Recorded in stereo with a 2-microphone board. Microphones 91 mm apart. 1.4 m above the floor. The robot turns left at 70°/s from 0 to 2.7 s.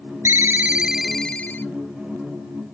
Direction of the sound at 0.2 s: 125° right.